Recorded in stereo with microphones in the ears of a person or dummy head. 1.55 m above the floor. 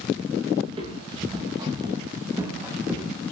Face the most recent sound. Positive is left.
turn(degrees=-5)  # may be behind; listen again after turning